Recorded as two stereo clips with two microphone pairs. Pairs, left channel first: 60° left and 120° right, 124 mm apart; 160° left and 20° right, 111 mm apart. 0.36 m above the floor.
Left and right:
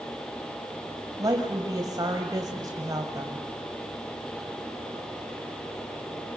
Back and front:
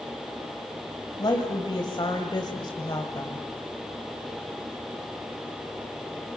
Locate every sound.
1.2 s a woman speaking: 170° right, 2.0 m